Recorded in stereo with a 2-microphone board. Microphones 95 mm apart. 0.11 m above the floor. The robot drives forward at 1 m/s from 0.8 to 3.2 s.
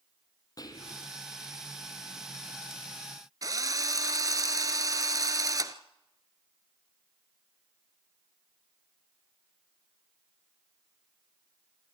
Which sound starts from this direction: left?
Whispering, at 0.6 s.